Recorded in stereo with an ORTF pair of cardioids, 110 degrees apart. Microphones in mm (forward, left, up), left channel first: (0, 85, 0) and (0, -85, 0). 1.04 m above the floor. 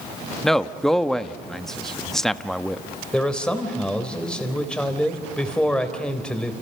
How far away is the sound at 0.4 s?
About 1.2 m.